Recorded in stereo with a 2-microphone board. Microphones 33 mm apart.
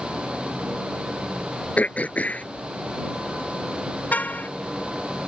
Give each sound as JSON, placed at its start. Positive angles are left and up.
{"t": 1.8, "sound": "throat clearing", "side_deg": 50}
{"t": 4.1, "sound": "a car horn", "side_deg": 50}